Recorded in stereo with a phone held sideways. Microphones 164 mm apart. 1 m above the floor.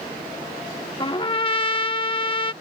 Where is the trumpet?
35° left (ahead or behind).